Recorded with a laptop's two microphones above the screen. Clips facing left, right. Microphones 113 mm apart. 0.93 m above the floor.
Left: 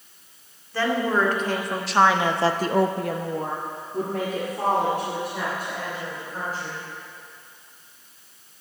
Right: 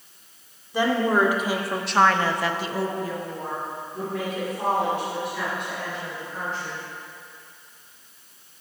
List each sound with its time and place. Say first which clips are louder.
0.7 s a woman speaking: right 2 dB; 15° right (ahead or behind), 2.5 m; by 6.9 s 40° left (ahead or behind), 5 m